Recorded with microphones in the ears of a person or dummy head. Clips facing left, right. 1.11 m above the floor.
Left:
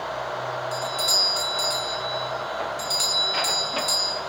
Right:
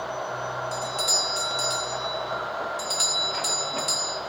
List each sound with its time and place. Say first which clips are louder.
0.7 s a doorbell: left 1 dB; 15° right (ahead or behind), 1.5 m